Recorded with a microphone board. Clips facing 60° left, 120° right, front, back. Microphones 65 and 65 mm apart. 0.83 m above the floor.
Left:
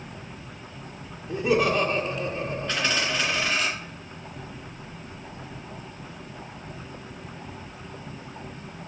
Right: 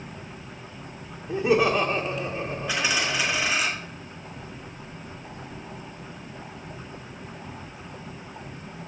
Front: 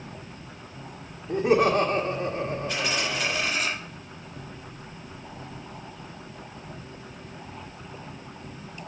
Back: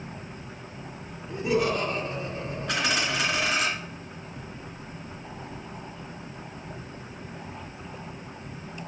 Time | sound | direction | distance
1.3 | laughter | 40° right | 1.7 m
2.7 | a dropped coin | 160° left | 2.5 m